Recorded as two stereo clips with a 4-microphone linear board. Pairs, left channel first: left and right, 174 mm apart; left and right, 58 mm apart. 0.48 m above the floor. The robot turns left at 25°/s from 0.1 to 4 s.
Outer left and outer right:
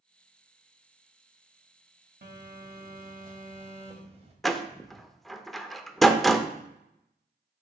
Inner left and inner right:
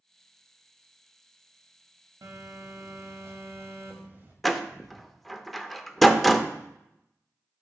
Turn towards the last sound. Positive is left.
turn(degrees=0)  # may be behind; listen again after turning